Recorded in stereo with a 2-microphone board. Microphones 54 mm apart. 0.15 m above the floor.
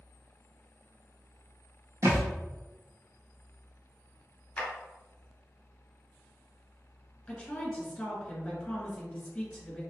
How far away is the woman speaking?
About 1.7 m.